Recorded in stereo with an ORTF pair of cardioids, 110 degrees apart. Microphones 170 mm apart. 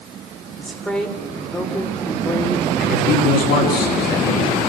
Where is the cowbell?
No cowbell in this recording.